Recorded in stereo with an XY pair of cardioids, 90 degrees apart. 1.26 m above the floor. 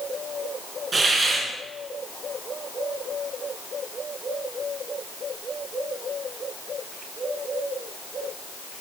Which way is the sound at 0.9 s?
40° right.